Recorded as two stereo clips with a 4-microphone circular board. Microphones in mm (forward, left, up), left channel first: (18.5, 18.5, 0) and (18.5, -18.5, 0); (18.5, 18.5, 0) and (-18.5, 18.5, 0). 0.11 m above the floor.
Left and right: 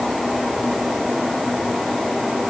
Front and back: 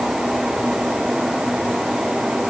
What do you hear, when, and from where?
Only background noise.